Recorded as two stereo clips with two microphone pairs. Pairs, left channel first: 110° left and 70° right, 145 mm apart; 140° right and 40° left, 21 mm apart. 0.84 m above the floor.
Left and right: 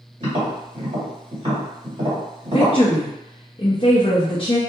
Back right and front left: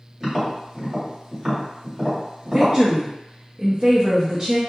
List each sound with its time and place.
0.2 s tapping: 25° right, 1.5 m
2.5 s a woman speaking: 80° left, 0.5 m